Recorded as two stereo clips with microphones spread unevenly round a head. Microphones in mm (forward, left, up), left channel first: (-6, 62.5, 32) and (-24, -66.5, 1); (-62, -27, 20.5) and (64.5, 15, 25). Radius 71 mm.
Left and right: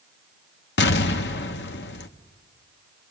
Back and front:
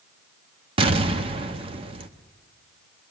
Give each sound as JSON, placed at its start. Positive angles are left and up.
{"t": 0.8, "sound": "an explosion", "azimuth_deg": 70, "distance_m": 0.9}